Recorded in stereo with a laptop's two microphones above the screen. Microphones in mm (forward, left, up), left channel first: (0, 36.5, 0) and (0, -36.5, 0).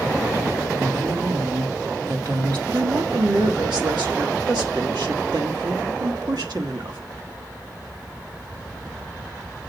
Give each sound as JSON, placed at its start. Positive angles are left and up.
{"t": 0.8, "sound": "a woman speaking", "side_deg": -75, "distance_m": 1.5}
{"t": 2.7, "sound": "a woman speaking", "side_deg": -75, "distance_m": 1.3}